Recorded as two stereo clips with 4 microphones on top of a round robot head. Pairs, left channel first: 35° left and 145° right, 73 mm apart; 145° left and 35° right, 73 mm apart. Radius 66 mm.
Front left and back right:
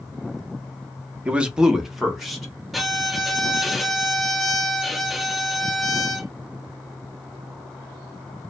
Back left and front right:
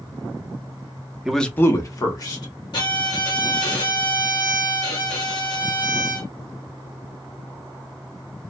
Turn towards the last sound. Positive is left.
turn(degrees=130)